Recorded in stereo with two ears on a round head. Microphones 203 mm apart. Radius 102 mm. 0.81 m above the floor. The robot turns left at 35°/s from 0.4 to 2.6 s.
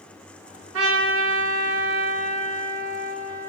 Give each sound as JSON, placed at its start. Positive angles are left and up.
{"t": 0.7, "sound": "a trumpet", "azimuth_deg": -85, "distance_m": 1.4}